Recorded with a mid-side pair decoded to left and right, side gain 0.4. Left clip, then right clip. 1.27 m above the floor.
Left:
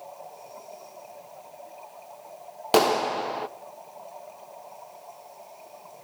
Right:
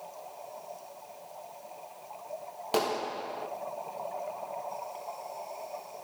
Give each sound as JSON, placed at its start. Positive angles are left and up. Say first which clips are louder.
{"t": 2.7, "sound": "a clap", "louder": "left 9 dB", "azimuth_deg": 65, "distance_m": 1.2}